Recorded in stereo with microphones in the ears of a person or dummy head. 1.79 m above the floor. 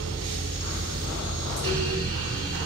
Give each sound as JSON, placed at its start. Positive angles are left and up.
{"t": 0.0, "sound": "a fan", "side_deg": -25, "distance_m": 1.5}